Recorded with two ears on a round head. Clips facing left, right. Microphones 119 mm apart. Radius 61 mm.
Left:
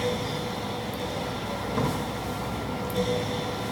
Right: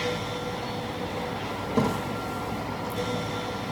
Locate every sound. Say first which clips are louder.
1.7 s a thud: right 4 dB; 20° right (ahead or behind), 3.5 m